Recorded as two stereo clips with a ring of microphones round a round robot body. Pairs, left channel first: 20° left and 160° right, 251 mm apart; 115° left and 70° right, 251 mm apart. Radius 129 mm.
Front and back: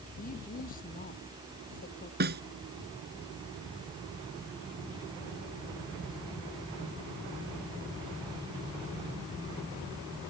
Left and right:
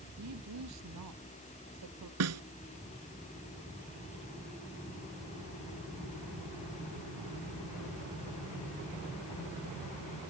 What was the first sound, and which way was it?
A woman speaking, 35° right.